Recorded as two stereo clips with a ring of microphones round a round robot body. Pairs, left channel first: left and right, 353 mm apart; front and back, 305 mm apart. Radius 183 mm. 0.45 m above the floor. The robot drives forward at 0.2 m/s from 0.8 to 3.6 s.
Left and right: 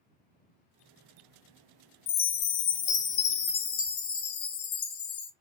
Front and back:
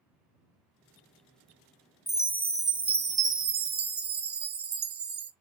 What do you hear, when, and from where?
2.1 s a chime: 90° left, 0.6 m; by 5.3 s 130° left, 0.6 m